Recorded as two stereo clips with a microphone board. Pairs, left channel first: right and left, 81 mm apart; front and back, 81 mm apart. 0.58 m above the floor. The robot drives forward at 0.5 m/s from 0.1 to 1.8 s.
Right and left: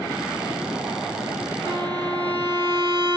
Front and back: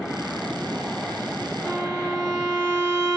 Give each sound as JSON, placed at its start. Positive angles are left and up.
{"t": 1.6, "sound": "a violin", "azimuth_deg": 120, "distance_m": 1.3}